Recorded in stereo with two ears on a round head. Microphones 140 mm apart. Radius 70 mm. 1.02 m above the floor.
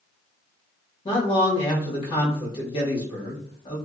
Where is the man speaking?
30° left (ahead or behind), 1.2 m.